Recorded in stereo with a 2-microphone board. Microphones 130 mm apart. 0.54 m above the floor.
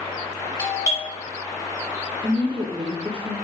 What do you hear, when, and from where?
0.6 s a doorbell: 30° left (ahead or behind), 1.7 m
2.2 s a woman speaking: 40° right (ahead or behind), 1.0 m